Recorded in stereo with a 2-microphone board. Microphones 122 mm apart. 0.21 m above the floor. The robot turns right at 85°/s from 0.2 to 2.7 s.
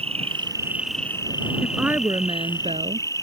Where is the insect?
60° right; by 3.2 s 150° left.